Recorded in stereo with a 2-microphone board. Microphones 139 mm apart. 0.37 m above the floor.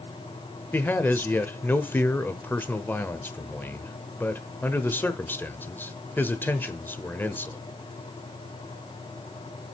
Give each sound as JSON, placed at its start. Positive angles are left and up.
{"t": 0.7, "sound": "a man speaking", "side_deg": 15, "distance_m": 1.0}